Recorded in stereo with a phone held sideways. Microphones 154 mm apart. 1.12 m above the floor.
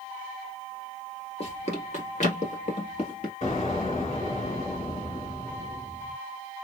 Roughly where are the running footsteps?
Left.